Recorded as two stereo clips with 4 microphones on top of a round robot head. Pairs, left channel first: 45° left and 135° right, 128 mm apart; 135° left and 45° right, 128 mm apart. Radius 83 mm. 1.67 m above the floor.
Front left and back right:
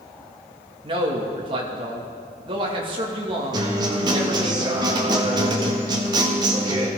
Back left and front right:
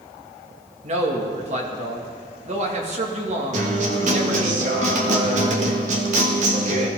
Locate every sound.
0.8 s a man speaking: 80° right, 2.5 m
3.5 s a guitar: 75° right, 1.7 m